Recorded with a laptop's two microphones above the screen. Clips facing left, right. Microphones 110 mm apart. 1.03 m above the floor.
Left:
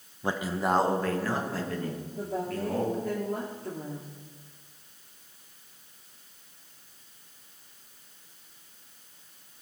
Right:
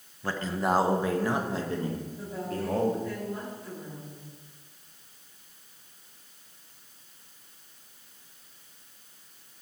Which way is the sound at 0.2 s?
20° left (ahead or behind).